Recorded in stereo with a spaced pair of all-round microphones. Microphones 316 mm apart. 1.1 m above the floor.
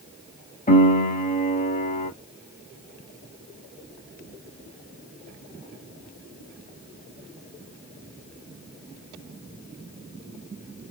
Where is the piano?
25° left (ahead or behind), 1.2 m.